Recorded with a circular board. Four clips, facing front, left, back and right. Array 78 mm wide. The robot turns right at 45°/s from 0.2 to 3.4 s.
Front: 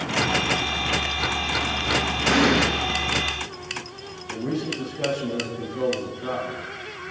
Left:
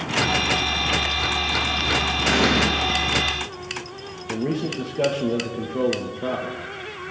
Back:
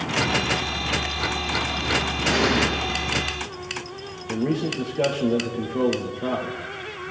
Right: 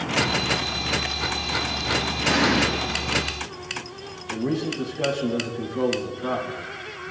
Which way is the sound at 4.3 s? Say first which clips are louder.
Left 1 dB, back 3 dB; 135° left.